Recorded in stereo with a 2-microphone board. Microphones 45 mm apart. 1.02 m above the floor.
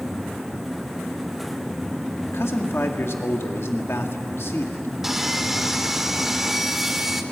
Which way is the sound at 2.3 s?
80° left.